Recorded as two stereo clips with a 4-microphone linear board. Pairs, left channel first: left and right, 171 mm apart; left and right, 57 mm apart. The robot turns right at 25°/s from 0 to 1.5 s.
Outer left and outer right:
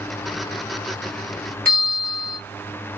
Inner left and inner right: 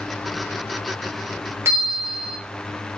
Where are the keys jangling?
I don't hear keys jangling.